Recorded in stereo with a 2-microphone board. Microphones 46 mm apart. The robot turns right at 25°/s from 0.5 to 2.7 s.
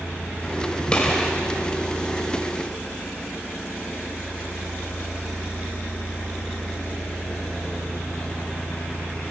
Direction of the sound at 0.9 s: 20° left (ahead or behind).